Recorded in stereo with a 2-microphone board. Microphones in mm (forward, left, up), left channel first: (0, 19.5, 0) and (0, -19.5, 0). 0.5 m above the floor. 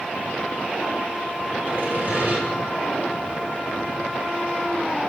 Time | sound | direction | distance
1.7 | sawing | 55° right (ahead or behind) | 1.7 m